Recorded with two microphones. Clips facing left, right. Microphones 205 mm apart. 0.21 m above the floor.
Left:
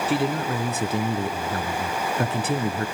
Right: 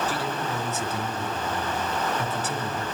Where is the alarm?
No alarm in this recording.